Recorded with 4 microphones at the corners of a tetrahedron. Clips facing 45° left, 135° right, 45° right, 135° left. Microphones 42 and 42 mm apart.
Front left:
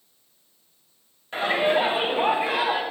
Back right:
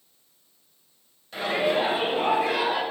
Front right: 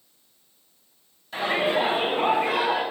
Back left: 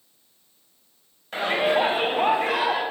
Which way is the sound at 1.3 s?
95° left.